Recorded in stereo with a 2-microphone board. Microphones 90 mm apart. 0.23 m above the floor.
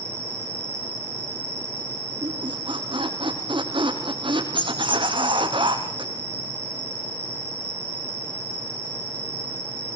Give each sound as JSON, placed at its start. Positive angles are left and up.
{"t": 0.0, "sound": "an insect", "side_deg": 90, "distance_m": 5.5}
{"t": 2.2, "sound": "a squeak", "side_deg": -65, "distance_m": 4.5}